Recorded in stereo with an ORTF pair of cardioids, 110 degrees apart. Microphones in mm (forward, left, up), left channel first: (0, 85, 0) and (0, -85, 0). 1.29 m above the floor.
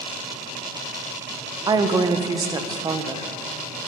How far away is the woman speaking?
About 0.8 m.